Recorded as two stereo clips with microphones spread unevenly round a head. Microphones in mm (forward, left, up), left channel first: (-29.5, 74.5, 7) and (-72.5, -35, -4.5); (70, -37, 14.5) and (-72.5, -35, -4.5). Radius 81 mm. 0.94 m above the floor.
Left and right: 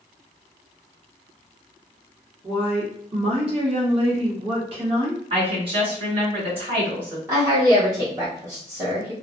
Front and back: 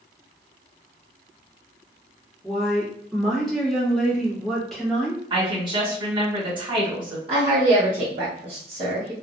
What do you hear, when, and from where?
2.4 s a woman speaking: 95° right, 1.2 m
5.3 s a woman speaking: 135° right, 1.6 m
7.3 s a woman speaking: 165° right, 1.0 m